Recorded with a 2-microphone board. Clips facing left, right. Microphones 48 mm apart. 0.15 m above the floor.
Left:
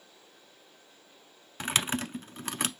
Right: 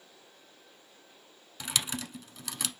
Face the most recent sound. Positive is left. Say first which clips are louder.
# left 5 dB
turn(degrees=40)  # may be behind; listen again after turning